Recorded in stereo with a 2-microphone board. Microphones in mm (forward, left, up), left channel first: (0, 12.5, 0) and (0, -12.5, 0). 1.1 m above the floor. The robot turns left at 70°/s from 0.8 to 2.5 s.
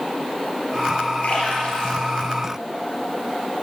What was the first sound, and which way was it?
A splash, 75° left (ahead or behind).